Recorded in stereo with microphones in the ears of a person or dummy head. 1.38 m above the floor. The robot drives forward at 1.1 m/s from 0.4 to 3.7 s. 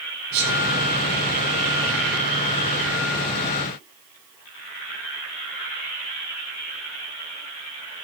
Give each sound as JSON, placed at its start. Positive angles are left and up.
{"t": 0.3, "sound": "a sneeze", "side_deg": -60, "distance_m": 9.5}